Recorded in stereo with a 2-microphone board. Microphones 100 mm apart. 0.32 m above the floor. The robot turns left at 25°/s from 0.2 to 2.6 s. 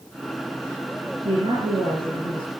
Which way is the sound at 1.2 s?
85° right.